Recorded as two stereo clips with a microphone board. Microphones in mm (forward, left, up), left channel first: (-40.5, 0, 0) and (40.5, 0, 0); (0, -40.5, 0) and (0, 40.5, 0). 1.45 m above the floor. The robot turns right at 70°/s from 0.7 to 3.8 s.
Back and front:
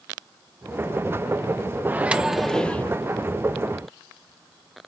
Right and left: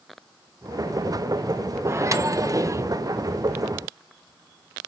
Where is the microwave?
50° left, 0.6 m; by 2.9 s 120° left, 0.6 m.